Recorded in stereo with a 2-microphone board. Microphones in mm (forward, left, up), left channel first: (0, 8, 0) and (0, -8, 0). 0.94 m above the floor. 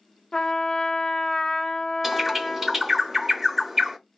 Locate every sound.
0.3 s a trumpet: 30° left (ahead or behind), 0.5 m
2.0 s a bird: 10° right (ahead or behind), 0.9 m